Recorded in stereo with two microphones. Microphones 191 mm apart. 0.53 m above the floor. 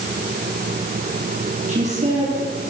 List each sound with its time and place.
1.7 s a woman speaking: 40° right (ahead or behind), 8.5 m